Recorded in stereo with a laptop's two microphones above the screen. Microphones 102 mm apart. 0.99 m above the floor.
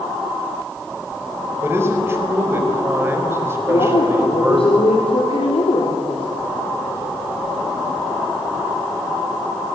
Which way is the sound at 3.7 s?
65° left (ahead or behind).